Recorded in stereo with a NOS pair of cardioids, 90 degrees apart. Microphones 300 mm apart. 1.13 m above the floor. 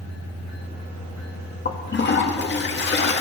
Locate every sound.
1.6 s a toilet flushing: 35° left, 2 m